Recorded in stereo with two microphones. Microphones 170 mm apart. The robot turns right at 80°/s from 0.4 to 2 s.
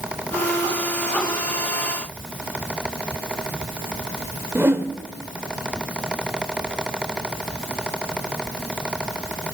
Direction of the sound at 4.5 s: 15° right (ahead or behind).